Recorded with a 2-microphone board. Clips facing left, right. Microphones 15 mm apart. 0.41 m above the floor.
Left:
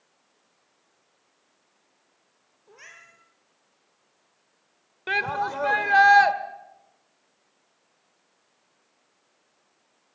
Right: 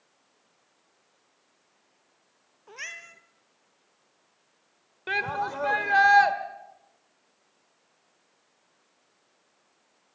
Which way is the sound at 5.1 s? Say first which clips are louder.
Left 3 dB; 15° left (ahead or behind).